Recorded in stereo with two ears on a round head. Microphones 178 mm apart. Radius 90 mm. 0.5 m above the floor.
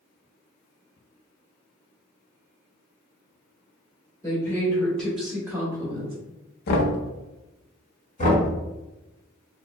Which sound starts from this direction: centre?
A woman speaking, at 4.2 s.